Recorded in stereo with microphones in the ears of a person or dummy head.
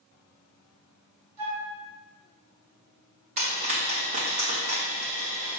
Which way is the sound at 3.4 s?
40° right (ahead or behind).